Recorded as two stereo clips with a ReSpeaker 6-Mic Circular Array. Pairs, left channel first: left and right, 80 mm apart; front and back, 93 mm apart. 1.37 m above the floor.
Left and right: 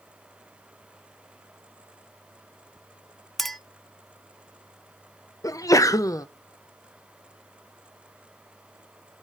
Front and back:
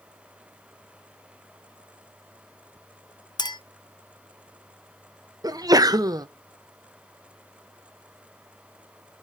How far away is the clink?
About 0.6 m.